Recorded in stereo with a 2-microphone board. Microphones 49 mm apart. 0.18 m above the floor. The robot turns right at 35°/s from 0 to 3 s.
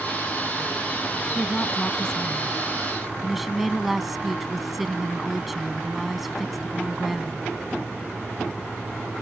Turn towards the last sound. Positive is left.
turn(degrees=-175)